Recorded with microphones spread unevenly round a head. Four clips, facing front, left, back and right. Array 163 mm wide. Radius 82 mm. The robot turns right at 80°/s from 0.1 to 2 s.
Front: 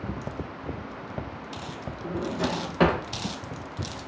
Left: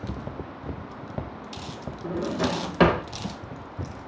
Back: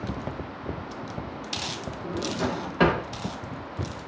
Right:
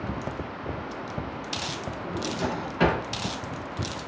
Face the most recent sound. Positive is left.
turn(degrees=90)